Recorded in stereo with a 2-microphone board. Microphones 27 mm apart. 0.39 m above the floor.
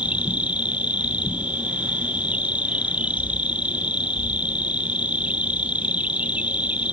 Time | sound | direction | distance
0.0 | an insect | 65° right (ahead or behind) | ?